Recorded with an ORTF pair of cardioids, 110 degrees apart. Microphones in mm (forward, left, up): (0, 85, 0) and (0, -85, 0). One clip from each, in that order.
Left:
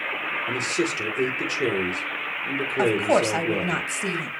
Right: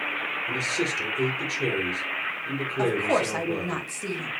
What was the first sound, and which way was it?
A man speaking, 25° left.